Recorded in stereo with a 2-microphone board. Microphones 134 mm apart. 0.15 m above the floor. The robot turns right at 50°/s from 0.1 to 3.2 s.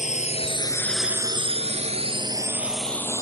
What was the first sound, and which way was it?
A drone, 65° left (ahead or behind).